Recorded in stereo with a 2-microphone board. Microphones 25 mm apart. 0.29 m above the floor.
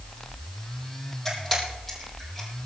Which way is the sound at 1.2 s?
5° left (ahead or behind).